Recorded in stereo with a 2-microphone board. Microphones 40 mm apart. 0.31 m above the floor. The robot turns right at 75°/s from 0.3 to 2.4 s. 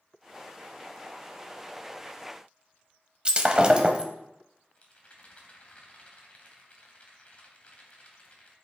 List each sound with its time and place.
3.2 s breaking glass: 25° right (ahead or behind), 0.9 m
4.8 s a rattle: 35° left (ahead or behind), 1.6 m